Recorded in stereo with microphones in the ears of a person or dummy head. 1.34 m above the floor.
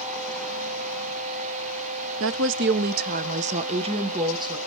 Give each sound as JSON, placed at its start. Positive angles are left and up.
{"t": 2.2, "sound": "a woman speaking", "side_deg": -70, "distance_m": 0.8}